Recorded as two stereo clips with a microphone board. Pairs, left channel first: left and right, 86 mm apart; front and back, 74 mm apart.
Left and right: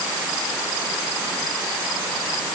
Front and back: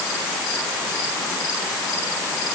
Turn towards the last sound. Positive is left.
No sound to turn to.